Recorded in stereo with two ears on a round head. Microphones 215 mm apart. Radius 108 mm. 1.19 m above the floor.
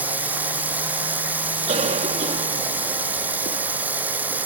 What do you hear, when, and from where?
0.0 s running water: 5° right (ahead or behind)
1.7 s a cough: 30° right (ahead or behind)